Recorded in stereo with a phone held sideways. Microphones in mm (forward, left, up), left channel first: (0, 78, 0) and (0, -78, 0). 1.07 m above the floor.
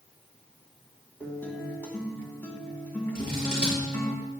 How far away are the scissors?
About 5.5 m.